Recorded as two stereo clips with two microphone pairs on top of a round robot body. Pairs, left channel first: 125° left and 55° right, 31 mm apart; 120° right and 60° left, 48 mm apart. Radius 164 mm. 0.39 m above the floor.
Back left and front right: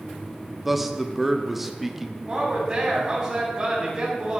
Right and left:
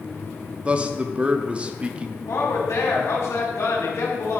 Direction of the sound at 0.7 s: 15° left.